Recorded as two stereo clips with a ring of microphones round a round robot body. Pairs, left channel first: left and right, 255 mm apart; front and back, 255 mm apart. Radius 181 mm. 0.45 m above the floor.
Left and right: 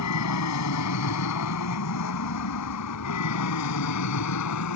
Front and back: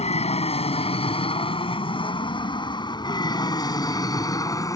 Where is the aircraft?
65° left; by 4.8 s 75° left.